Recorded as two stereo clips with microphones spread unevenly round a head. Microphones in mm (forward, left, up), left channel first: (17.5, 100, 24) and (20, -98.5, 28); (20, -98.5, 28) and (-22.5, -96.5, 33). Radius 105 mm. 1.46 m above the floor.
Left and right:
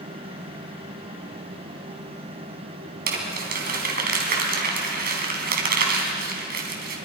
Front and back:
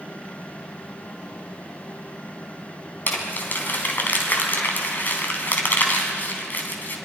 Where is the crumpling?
50° right, 3.5 m.